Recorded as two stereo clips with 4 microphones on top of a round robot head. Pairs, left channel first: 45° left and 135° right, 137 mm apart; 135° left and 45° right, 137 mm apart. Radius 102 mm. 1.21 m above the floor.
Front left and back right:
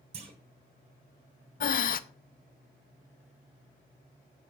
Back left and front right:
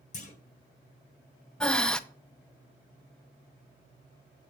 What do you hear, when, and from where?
0.1 s a clunk: 175° left, 1.6 m
1.6 s breathing: 50° left, 0.8 m